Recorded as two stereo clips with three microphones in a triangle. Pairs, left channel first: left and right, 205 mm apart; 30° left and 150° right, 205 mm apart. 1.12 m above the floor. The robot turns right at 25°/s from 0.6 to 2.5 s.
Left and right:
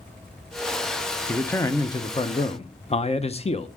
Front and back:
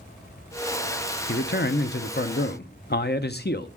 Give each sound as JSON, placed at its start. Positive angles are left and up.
{"t": 1.3, "sound": "a man speaking", "azimuth_deg": 10, "distance_m": 0.7}